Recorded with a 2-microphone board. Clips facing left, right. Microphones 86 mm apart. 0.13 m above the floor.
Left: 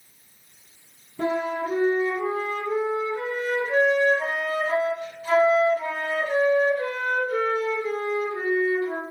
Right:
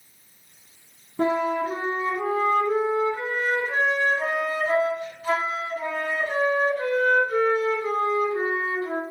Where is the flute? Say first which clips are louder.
Right 3 dB; 35° right (ahead or behind), 1.3 m.